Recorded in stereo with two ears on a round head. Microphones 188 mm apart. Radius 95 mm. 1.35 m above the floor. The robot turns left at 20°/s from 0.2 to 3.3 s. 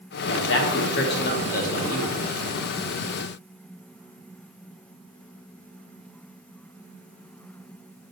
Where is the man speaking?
75° left, 0.8 m; by 2.1 s 40° left, 0.8 m.